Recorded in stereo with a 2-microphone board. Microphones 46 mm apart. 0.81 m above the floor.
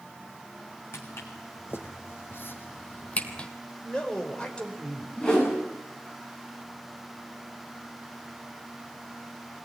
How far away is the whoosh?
About 9 m.